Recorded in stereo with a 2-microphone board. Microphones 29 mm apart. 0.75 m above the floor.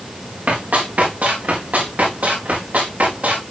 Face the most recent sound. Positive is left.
turn(degrees=-85)